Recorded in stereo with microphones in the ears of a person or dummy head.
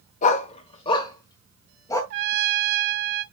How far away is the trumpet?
About 0.9 m.